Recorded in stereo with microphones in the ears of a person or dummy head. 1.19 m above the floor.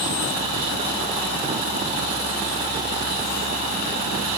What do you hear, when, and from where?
Only background noise.